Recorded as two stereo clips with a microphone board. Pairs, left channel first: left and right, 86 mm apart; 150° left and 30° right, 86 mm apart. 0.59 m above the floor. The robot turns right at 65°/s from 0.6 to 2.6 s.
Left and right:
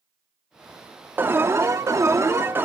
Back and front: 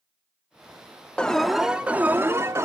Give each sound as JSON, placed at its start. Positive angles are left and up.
{"t": 1.2, "sound": "an alarm", "azimuth_deg": -140, "distance_m": 1.2}